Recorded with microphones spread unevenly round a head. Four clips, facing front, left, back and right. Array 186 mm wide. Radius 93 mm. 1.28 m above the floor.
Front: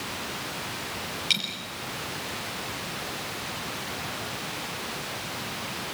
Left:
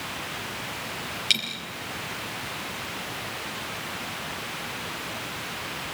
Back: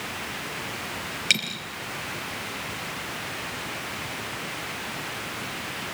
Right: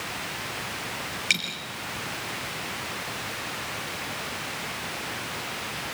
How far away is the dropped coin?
About 5 m.